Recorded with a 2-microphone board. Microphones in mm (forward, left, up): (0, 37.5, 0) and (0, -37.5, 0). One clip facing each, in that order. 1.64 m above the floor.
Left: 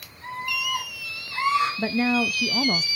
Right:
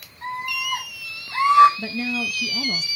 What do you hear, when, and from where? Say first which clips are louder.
0.2 s a scream: right 2 dB; 75° right (ahead or behind), 6 m; by 1.7 s 85° right, 6 m
1.8 s a woman speaking: left 5 dB; 45° left (ahead or behind), 0.6 m